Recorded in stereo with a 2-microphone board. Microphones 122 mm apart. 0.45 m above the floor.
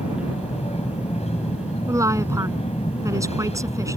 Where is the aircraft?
60° left (ahead or behind).